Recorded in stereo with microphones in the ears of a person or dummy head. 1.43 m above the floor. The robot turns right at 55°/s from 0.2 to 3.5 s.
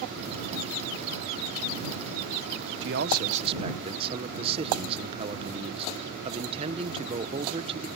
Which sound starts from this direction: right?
A man speaking, at 2.8 s.